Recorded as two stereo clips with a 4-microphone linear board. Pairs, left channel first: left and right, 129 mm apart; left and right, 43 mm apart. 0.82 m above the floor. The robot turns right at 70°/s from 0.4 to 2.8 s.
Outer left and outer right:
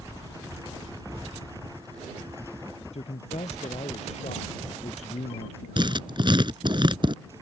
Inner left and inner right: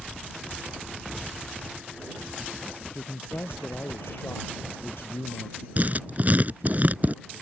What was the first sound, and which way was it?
A man speaking, 60° left (ahead or behind).